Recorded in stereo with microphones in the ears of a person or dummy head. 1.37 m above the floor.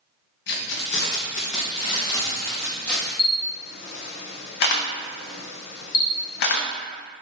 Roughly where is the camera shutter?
Left.